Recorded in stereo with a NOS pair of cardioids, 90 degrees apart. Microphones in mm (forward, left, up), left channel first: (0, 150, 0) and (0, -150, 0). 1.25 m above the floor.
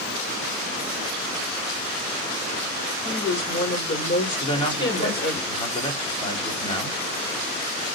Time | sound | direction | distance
3.0 | a woman speaking | 35° left | 4.5 m
4.4 | a man speaking | 20° left | 3 m